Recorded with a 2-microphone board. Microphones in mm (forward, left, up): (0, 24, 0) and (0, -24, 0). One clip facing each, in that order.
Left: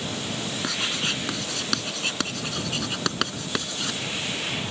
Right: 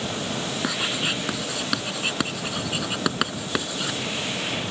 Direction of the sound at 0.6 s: 10° right (ahead or behind).